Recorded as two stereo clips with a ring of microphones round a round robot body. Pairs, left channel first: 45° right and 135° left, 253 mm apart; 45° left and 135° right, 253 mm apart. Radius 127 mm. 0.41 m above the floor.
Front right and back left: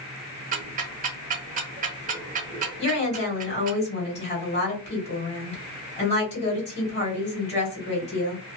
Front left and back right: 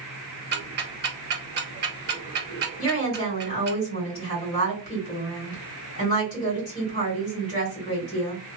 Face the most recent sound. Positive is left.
turn(degrees=-10)